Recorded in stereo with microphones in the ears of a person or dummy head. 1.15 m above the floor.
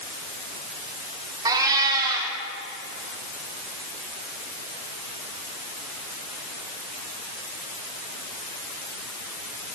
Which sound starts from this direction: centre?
A cat meowing, at 1.4 s.